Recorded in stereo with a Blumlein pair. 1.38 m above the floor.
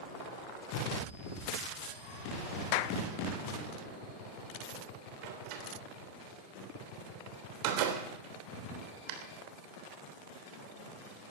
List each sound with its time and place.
2.7 s a clap: 45° left, 0.7 m
5.2 s a door slam: 45° right, 3 m